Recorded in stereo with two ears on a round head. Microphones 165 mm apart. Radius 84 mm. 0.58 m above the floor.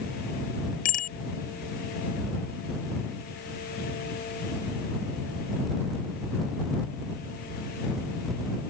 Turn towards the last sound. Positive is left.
turn(degrees=45)  # may be behind; listen again after turning